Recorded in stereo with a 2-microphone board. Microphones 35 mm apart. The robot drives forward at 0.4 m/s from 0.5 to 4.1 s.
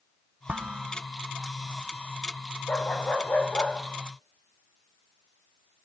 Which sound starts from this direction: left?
A dog barking, at 2.7 s.